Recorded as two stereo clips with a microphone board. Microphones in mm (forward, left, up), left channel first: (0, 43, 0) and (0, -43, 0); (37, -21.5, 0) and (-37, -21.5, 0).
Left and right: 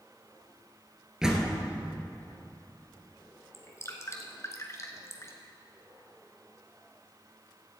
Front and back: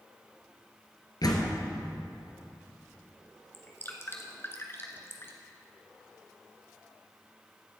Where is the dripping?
45° left, 1.3 m.